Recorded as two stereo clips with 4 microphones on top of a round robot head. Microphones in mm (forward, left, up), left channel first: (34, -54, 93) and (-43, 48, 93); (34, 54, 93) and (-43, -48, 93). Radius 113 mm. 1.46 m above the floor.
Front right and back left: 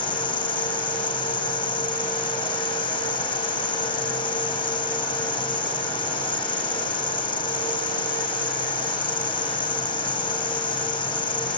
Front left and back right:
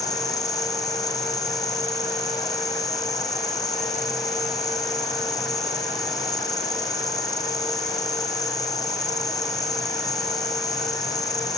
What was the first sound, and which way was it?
An insect, 5° right.